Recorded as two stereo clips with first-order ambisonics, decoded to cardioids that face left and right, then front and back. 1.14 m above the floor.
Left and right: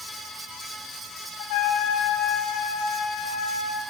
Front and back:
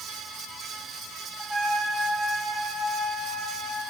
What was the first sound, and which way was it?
A trumpet, 95° left.